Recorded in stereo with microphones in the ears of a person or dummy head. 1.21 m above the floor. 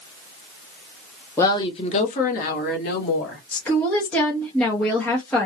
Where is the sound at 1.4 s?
15° left (ahead or behind), 0.7 m; by 3.4 s 65° left (ahead or behind), 1.7 m.